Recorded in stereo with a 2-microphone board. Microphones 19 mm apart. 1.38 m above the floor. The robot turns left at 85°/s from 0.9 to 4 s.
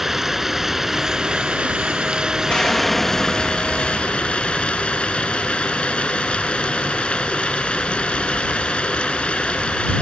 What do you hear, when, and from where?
0.0 s running water: 10° right; by 10.0 s 85° left
2.5 s an explosion: 60° left; by 5.0 s 70° right